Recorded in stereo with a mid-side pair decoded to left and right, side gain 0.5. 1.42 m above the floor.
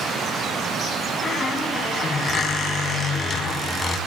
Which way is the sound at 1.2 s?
35° left.